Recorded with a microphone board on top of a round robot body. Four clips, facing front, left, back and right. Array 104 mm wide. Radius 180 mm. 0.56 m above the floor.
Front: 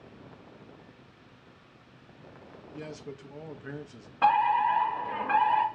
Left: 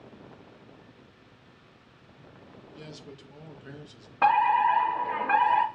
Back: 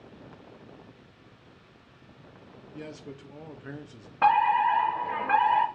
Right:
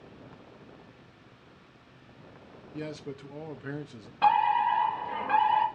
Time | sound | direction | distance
2.7 | a man speaking | 90° right | 0.7 m
4.2 | a fire alarm | 115° left | 1.8 m